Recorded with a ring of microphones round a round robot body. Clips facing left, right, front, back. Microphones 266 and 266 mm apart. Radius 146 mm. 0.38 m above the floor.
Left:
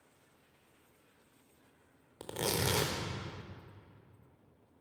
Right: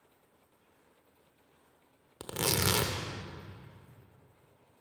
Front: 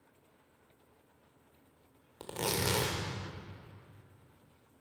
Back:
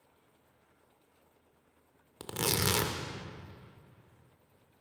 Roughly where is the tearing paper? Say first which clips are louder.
Right 2 dB, back 1 dB; behind right.